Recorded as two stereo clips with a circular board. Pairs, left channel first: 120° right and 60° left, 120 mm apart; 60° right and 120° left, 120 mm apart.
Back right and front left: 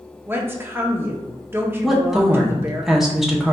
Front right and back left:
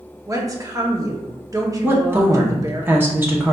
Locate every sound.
0.3 s a woman speaking: 110° left, 0.6 m
1.8 s a woman speaking: 145° left, 0.7 m